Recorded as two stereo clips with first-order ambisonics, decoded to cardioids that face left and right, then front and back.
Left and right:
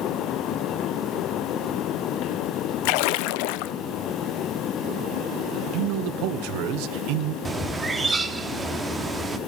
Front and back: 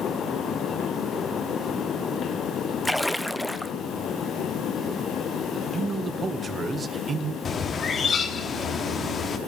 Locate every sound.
2.9 s a splash: 90° left, 0.7 m
5.7 s a man speaking: 110° right, 1.2 m
7.5 s a bird: 30° right, 1.2 m